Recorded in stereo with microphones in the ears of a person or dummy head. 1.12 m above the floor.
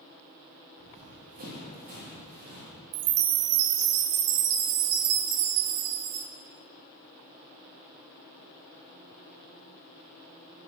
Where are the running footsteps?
45° right (ahead or behind), 6.5 m; by 2.7 s 60° right (ahead or behind), 9 m.